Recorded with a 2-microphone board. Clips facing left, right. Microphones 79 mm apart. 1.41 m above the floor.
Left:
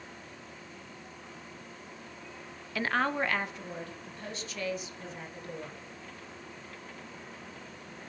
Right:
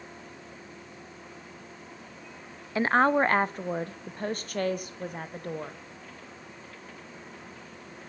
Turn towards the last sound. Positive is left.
turn(degrees=-55)  # may be behind; listen again after turning